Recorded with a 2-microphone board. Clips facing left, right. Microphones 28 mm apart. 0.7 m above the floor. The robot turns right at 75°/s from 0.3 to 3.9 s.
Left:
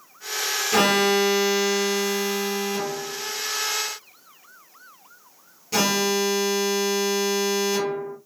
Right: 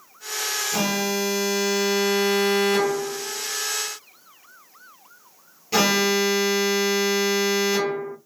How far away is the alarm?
About 0.8 m.